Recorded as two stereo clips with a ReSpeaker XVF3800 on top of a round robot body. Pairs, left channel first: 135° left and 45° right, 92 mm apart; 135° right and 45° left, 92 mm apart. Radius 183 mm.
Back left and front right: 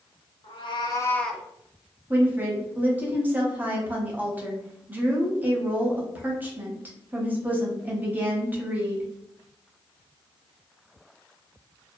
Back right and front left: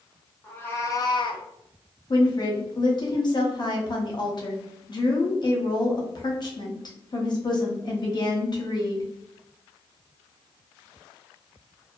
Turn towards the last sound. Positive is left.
turn(degrees=-115)